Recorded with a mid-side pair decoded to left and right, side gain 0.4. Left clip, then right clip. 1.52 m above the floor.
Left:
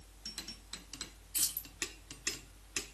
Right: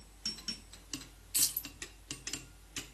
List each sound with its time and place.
1.3 s keys jangling: 65° right, 1.4 m